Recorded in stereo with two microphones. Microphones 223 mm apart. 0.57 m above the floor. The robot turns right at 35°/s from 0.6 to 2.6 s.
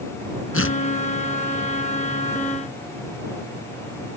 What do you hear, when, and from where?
0.5 s tearing paper: 75° left (ahead or behind); by 0.8 s 70° left (ahead or behind)